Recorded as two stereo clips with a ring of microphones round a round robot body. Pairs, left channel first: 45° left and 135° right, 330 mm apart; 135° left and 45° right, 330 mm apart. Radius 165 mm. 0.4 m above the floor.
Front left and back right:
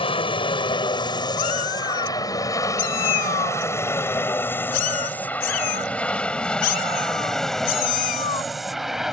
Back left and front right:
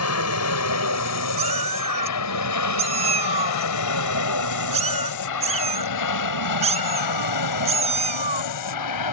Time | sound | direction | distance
0.0 | an aircraft | 115° left | ?
1.4 | a cat meowing | 25° left | ?